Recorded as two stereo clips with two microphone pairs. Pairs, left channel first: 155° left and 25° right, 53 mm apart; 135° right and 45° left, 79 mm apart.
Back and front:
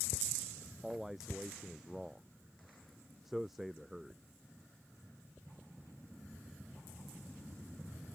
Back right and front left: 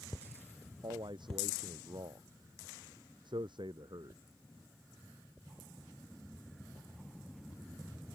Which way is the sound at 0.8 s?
60° left.